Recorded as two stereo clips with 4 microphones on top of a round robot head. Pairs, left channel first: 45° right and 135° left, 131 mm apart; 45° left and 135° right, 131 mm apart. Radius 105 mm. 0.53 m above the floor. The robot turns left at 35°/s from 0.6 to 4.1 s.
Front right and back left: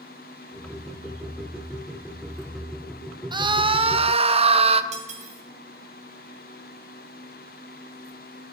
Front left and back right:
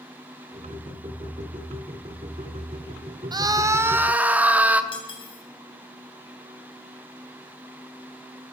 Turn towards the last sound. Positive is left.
turn(degrees=100)